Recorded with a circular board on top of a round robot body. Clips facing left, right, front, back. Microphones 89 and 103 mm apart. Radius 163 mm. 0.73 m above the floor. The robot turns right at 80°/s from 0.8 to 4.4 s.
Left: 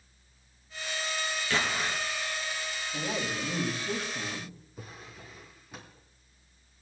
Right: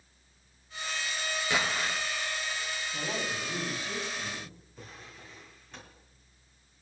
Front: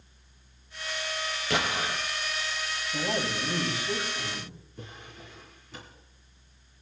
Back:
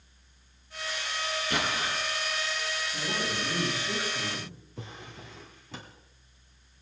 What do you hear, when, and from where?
1.5 s an explosion: 15° right, 2.5 m; by 2.0 s 20° left, 2.5 m
2.9 s a man speaking: 5° left, 5 m; by 4.5 s 125° left, 5 m
4.8 s a drawer: 170° left, 2.5 m